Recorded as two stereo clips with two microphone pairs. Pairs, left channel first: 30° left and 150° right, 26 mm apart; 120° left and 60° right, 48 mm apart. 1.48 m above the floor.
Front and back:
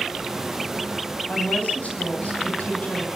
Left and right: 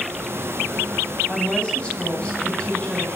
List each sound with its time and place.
1.3 s a woman speaking: 55° left, 9.5 m